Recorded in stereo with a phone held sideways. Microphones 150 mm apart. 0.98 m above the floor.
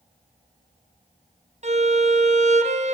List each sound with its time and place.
1.6 s a violin: 50° right (ahead or behind), 0.8 m